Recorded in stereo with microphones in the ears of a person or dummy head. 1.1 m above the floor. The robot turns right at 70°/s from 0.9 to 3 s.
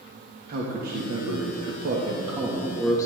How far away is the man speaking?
About 1.4 m.